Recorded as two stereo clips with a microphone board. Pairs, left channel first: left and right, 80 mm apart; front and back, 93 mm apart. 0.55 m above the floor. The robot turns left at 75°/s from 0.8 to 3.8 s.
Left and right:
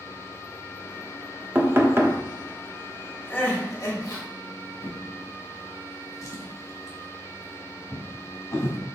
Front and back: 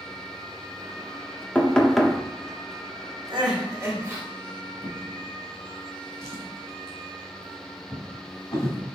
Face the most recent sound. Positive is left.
turn(degrees=45)